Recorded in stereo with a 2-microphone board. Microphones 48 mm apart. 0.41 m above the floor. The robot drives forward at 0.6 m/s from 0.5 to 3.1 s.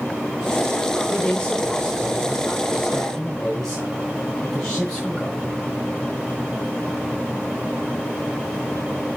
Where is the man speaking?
20° left (ahead or behind), 0.9 m; by 5.5 s 10° left (ahead or behind), 1.7 m.